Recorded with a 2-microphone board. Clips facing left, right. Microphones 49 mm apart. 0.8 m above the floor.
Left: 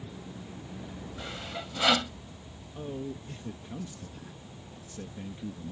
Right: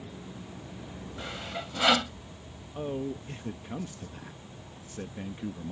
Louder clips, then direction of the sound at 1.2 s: Right 2 dB; 10° right (ahead or behind).